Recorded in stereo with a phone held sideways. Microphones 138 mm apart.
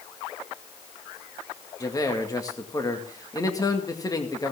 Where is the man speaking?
25° left (ahead or behind), 2.0 m.